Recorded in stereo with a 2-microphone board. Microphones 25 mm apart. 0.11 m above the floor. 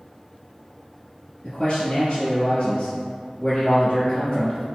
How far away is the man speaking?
About 2.0 m.